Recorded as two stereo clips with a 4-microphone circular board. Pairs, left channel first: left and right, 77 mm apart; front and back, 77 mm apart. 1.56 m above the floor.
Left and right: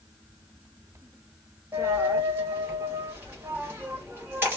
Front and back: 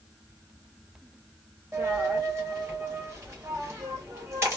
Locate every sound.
1.7 s a dropped coin: 140° right, 1.2 m